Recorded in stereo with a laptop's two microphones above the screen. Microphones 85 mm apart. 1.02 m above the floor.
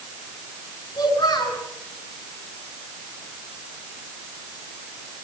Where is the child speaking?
70° left (ahead or behind), 7.5 m.